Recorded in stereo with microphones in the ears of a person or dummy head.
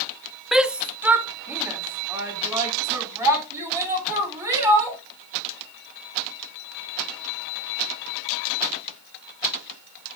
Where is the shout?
Centre (ahead or behind), 0.5 m; by 5.0 s 15° right (ahead or behind), 4 m.